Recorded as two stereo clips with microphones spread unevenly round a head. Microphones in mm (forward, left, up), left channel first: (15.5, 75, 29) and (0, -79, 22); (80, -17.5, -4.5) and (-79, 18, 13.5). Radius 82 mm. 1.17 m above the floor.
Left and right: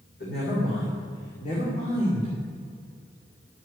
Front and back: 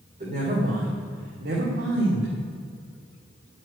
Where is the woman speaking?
115° left, 3.5 m; by 2.3 s 145° left, 2.5 m.